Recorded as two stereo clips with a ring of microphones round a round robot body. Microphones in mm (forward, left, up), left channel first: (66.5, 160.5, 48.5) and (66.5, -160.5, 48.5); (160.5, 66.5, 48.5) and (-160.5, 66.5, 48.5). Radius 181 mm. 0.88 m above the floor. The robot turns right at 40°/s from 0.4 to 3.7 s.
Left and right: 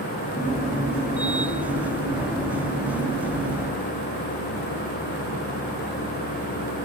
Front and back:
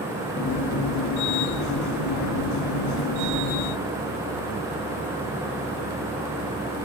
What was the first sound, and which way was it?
Only background noise.